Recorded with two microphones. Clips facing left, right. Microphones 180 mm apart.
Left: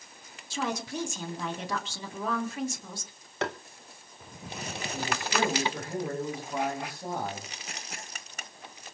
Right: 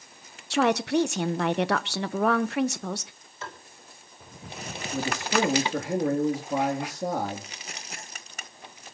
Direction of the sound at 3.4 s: 75° left (ahead or behind).